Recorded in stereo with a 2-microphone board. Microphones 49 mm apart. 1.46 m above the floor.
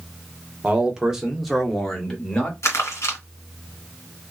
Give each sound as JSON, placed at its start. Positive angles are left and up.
{"t": 0.6, "sound": "a man speaking", "side_deg": -20, "distance_m": 0.9}
{"t": 2.6, "sound": "crumpling", "side_deg": 65, "distance_m": 1.4}